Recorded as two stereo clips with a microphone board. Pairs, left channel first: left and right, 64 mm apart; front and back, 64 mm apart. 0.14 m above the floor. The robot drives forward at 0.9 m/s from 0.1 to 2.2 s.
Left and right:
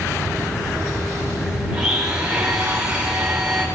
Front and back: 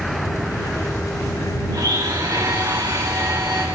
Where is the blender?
165° right, 10 m; by 3.6 s 170° right, 10 m.